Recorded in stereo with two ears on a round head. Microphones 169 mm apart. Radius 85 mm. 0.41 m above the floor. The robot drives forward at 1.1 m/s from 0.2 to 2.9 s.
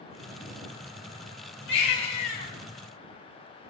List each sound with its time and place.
1.7 s a baby crying: 70° left (ahead or behind), 3 m; by 2.5 s 55° left (ahead or behind), 3.5 m